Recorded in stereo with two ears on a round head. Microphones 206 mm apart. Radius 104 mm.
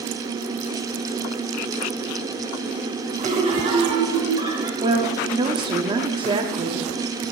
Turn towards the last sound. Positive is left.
turn(degrees=-20)  # may be behind; listen again after turning